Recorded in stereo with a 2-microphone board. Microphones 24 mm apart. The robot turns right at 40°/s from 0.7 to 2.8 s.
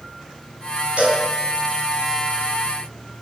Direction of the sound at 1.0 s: 60° right (ahead or behind).